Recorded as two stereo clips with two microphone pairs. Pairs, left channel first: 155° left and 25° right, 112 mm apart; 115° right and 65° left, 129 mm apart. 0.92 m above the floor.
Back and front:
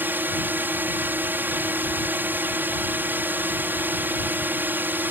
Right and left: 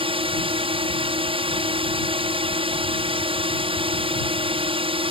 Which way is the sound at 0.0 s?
45° left.